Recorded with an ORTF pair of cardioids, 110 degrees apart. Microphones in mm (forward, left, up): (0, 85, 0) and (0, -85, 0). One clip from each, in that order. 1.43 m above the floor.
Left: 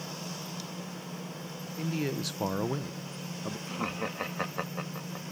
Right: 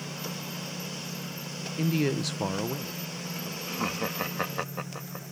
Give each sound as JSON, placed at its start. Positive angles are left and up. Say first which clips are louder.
{"t": 1.8, "sound": "a man speaking", "louder": "right 5 dB", "azimuth_deg": -40}
{"t": 3.7, "sound": "laughter", "louder": "right 4 dB", "azimuth_deg": -15}